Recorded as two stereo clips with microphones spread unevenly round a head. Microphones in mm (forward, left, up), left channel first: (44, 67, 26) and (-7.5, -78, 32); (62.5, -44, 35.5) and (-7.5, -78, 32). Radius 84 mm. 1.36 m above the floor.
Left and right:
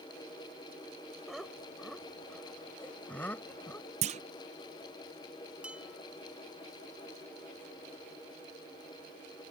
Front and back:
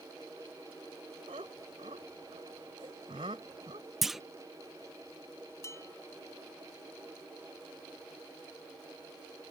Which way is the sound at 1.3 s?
160° left.